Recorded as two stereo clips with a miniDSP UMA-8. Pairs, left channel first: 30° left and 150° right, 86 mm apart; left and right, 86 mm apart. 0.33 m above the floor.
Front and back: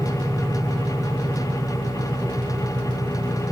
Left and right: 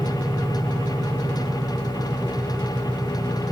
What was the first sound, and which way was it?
An engine running, 120° right.